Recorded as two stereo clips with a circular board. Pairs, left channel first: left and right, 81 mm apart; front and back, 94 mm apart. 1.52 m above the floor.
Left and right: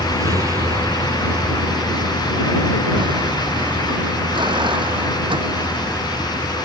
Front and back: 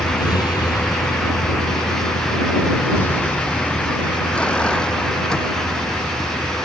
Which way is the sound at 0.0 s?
40° right.